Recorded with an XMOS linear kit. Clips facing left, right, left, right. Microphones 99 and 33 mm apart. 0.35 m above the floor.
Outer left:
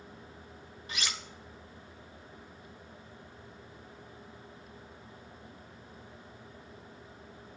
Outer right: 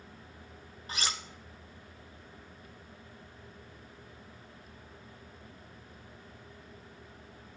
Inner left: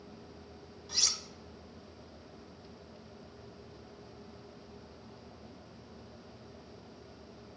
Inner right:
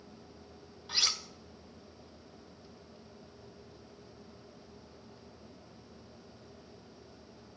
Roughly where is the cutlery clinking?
Right.